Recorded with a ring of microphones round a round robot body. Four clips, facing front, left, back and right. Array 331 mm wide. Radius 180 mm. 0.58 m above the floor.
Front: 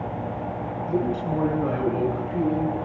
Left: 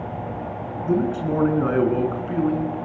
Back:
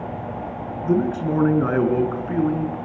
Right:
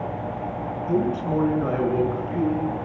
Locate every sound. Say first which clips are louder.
0.8 s a man speaking: left 2 dB, back 5 dB; 155° left, 8.5 m; by 2.8 s 150° left, 9 m